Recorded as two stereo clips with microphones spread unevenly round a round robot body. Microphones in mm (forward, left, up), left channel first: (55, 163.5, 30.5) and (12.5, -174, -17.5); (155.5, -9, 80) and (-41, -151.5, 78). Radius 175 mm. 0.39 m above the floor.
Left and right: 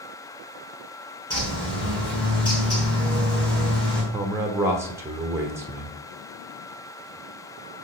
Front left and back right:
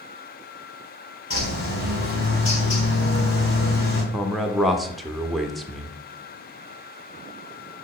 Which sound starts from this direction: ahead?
A bird, at 1.3 s.